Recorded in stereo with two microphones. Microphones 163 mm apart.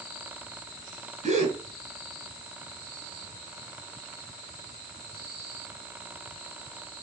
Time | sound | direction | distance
1.2 | a gasp | 45° right (ahead or behind) | 2.5 m